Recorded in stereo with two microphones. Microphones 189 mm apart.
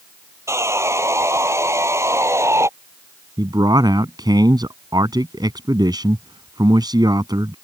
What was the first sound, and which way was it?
Sawing, 15° right (ahead or behind).